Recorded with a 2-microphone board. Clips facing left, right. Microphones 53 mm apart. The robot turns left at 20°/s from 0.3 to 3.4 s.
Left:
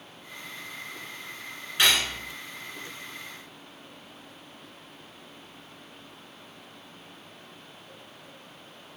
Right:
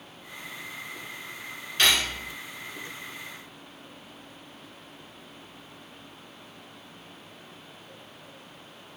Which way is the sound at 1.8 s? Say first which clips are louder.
Even; 15° left (ahead or behind).